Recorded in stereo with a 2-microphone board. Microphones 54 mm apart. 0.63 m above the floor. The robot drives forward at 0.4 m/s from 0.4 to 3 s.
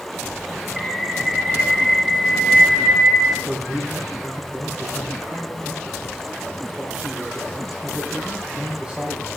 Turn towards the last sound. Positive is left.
turn(degrees=-25)  # may be behind; listen again after turning